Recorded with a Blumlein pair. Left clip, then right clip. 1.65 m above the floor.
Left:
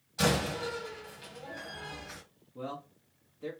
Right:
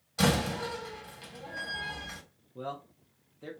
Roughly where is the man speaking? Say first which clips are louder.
Right 1 dB; ahead.